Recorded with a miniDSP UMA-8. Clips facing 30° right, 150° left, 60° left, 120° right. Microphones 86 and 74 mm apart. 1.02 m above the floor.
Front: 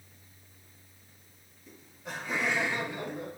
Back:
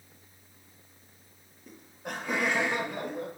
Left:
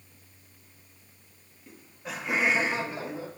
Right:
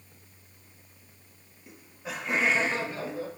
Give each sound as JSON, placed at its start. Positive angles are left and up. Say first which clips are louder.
{"t": 1.7, "sound": "laughter", "louder": "back 3 dB, right 1 dB", "azimuth_deg": 165, "distance_m": 1.0}